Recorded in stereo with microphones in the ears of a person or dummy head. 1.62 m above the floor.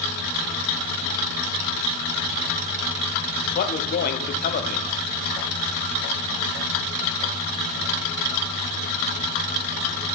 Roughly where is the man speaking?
Left.